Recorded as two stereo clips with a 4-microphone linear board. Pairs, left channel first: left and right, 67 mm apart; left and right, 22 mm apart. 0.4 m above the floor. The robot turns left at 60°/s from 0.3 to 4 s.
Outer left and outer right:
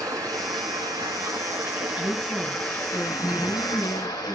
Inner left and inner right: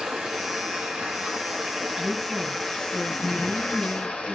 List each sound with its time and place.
0.0 s running water: 60° right, 3.5 m; by 4.4 s 80° left, 3.5 m
2.0 s a woman speaking: 165° right, 4 m; by 4.4 s 75° left, 4 m